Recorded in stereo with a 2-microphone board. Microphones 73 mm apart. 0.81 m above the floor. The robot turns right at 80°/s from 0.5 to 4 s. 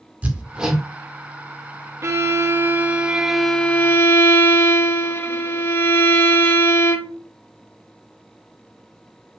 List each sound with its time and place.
0.2 s hammering: 20° right (ahead or behind), 1.6 m; by 0.8 s 5° left (ahead or behind), 1.6 m
2.0 s a violin: 110° right, 1.1 m; by 7.2 s 50° left, 1.1 m